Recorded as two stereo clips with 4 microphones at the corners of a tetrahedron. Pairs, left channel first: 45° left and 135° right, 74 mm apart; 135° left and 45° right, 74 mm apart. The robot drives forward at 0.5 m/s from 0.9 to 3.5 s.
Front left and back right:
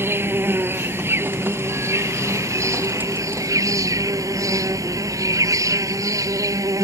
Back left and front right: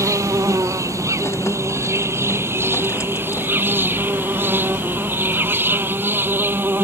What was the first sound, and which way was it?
An insect, 80° right.